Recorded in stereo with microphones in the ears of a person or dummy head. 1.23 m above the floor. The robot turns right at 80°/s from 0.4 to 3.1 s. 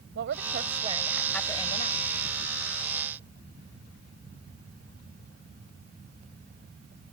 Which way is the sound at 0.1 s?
65° right.